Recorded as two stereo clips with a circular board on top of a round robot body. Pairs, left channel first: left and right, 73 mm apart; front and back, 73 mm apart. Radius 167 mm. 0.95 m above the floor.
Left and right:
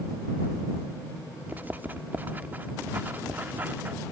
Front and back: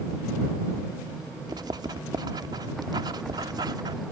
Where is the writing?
155° right.